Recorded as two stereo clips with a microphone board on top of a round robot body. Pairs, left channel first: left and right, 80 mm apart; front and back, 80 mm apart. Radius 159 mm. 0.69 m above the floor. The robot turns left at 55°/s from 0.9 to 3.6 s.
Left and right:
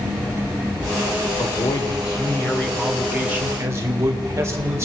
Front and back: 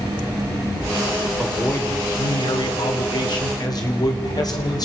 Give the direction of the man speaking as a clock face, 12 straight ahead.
9 o'clock.